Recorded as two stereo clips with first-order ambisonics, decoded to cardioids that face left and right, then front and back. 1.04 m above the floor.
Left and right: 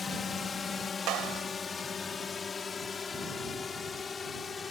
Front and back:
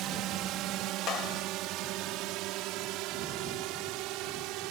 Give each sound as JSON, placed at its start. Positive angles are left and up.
{"t": 0.0, "sound": "a drone", "azimuth_deg": 155}
{"t": 1.1, "sound": "a clap", "azimuth_deg": -50}